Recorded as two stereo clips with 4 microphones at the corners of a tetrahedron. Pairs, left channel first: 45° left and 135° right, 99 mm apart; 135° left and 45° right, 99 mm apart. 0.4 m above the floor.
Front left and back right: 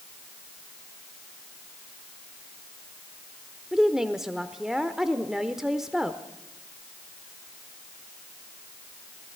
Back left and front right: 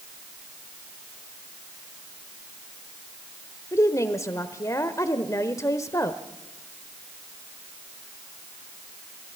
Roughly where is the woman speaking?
Behind left.